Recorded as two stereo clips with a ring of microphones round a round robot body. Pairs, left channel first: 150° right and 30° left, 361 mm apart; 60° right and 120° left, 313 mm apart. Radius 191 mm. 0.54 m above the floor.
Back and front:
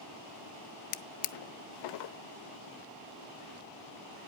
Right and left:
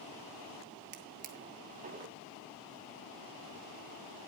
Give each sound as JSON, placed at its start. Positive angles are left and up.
{"t": 0.9, "sound": "a drawer", "azimuth_deg": -175, "distance_m": 0.5}